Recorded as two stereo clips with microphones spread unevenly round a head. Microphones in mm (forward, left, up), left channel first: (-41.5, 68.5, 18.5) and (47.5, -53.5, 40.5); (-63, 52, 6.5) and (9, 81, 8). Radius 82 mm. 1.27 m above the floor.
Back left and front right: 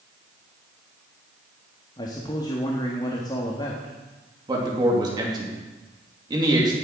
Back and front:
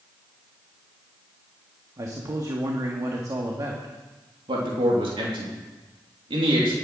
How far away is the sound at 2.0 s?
About 1.7 m.